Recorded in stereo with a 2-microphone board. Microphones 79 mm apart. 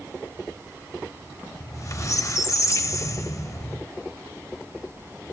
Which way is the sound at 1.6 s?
40° left (ahead or behind).